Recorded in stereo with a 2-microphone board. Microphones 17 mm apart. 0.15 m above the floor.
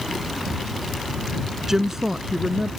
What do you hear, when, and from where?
1.7 s a woman speaking: 30° right (ahead or behind); by 2.7 s 20° right (ahead or behind)